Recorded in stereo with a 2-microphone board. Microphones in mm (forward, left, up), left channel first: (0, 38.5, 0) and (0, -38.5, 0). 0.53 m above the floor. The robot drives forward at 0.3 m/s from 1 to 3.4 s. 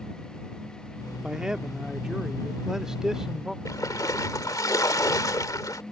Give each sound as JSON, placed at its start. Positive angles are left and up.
{"t": 1.2, "sound": "a man speaking", "side_deg": -10}
{"t": 3.6, "sound": "a splash", "side_deg": 50}